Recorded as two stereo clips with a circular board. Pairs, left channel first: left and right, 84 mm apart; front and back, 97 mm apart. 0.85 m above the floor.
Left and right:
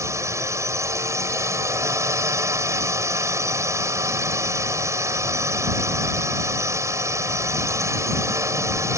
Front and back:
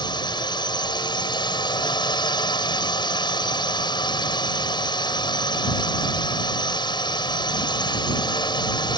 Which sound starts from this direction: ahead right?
A drone, at 0.0 s.